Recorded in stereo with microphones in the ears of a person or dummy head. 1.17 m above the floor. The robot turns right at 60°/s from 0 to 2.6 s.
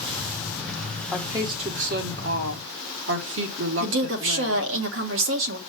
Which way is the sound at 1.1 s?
170° right.